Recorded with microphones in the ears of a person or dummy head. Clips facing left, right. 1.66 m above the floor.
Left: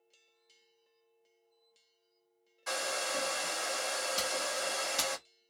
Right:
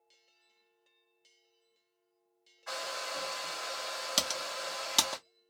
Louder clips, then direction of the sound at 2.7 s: Left 4 dB; 50° left (ahead or behind).